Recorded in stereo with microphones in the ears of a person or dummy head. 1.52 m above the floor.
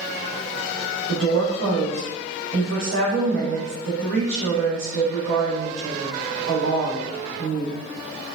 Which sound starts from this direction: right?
A woman speaking, at 1.1 s.